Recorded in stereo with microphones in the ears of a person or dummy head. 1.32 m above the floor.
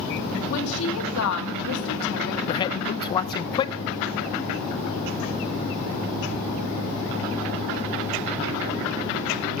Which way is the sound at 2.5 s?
25° left (ahead or behind).